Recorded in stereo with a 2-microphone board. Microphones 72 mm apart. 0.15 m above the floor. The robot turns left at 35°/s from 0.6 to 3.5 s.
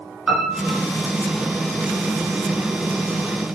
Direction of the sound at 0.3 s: 15° right (ahead or behind).